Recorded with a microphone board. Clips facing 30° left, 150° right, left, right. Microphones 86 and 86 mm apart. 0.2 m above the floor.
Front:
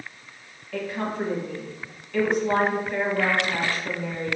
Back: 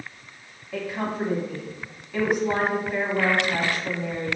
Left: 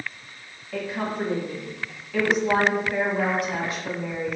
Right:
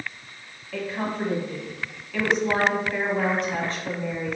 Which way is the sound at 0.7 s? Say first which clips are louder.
Even, even; 160° left.